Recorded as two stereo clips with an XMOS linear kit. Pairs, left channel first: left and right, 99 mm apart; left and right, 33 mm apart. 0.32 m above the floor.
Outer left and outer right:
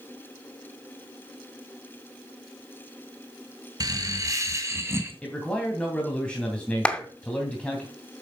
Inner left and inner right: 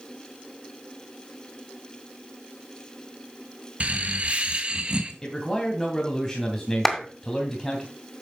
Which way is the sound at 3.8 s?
35° right (ahead or behind).